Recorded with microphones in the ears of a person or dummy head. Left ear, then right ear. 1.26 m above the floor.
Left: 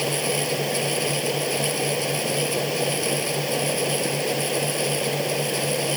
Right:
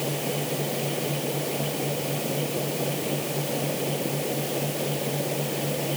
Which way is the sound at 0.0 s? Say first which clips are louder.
Left 5 dB; 85° left.